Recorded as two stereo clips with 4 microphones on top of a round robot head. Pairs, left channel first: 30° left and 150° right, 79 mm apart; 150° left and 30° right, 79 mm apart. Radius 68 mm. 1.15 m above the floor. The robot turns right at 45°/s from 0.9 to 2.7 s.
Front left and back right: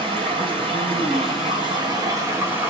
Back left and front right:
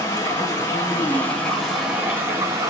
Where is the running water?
160° right, 3 m; by 2.7 s 80° right, 3 m.